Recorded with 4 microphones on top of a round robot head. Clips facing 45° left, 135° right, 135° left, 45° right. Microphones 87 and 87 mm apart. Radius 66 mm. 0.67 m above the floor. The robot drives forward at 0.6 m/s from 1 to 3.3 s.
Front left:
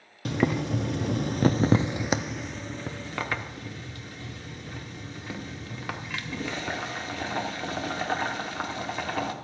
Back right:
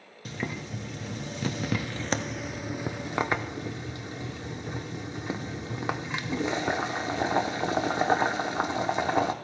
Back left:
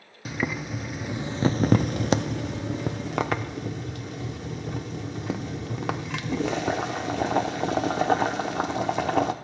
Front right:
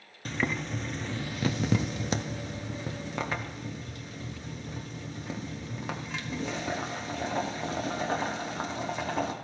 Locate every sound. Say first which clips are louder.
0.2 s boiling: front left 9 dB, back left 2 dB; 50° left, 0.6 m; by 9.3 s 155° left, 1.2 m